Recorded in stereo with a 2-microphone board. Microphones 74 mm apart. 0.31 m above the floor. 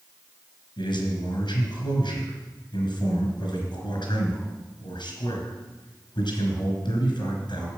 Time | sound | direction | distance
0.8 | a man speaking | 70° left (ahead or behind) | 3.5 m